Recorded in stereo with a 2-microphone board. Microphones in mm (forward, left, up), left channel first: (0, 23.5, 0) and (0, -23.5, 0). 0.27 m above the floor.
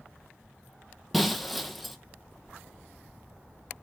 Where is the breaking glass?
Centre (ahead or behind), 0.7 m.